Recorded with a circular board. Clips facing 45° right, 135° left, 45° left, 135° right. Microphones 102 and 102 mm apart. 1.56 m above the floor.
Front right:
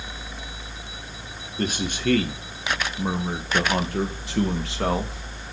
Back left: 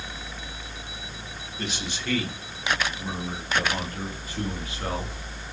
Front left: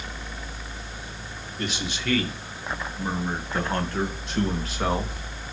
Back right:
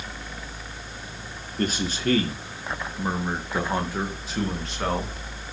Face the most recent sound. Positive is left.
turn(degrees=-35)